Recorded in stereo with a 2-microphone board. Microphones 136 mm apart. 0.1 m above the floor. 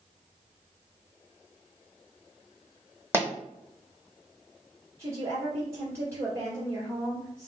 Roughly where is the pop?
Centre.